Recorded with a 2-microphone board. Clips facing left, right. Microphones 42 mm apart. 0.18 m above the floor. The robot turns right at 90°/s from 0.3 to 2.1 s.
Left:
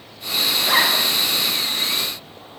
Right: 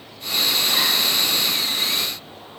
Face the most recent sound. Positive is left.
turn(degrees=-145)